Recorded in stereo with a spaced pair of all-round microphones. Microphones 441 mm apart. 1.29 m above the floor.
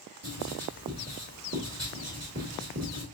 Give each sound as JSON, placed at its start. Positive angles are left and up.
{"t": 0.2, "sound": "writing", "side_deg": -35, "distance_m": 1.7}